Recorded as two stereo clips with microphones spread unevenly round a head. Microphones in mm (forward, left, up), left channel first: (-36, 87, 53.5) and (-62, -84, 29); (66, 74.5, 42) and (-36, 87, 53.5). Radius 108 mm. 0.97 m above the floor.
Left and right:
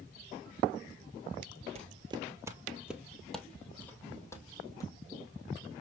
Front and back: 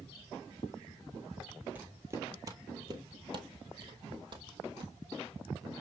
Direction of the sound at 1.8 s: 130° right.